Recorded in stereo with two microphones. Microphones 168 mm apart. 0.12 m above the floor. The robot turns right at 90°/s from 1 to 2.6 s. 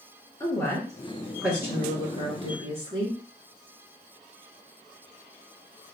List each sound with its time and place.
0.4 s a woman speaking: 145° left, 1.9 m; by 3.2 s 70° right, 1.9 m